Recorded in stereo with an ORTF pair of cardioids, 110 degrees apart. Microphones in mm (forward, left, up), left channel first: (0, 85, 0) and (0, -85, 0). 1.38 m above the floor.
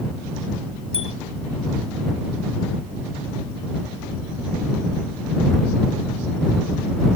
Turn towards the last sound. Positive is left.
turn(degrees=35)